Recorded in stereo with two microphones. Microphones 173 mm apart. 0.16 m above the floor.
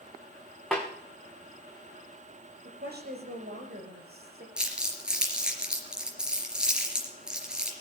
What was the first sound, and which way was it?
A snare drum, centre (ahead or behind).